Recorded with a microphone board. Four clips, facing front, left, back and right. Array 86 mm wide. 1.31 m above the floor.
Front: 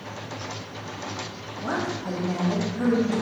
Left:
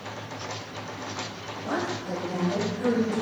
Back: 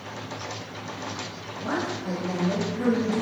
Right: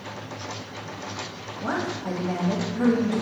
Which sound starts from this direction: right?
A woman speaking, at 1.6 s.